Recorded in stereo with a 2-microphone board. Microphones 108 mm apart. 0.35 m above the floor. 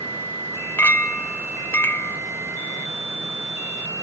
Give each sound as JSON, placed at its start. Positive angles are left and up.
{"t": 0.8, "sound": "a clink", "side_deg": 25, "distance_m": 0.5}